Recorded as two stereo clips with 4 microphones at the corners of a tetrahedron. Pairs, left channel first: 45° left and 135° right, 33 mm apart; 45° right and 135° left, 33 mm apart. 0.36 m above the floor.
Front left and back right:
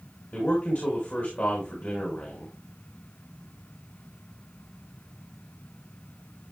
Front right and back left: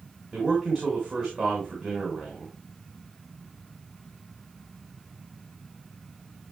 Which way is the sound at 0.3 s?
45° left.